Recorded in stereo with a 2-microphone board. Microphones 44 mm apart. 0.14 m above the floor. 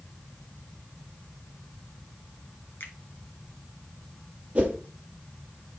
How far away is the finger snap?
About 1.7 m.